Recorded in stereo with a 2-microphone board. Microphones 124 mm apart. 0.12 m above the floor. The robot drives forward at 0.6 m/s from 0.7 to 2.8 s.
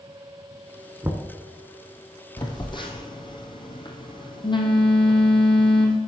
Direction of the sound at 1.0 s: 20° right (ahead or behind).